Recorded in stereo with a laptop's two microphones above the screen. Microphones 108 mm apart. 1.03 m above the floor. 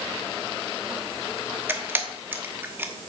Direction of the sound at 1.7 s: 20° right (ahead or behind).